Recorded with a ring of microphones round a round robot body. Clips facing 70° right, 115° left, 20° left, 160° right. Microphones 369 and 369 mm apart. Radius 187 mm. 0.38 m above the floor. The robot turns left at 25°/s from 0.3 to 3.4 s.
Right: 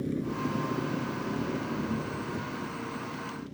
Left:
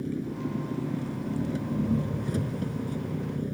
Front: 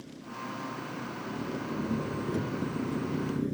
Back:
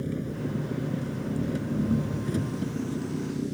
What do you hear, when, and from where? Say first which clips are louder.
0.0 s an engine running: even, back 12 dB; 165° right; by 3.5 s 115° left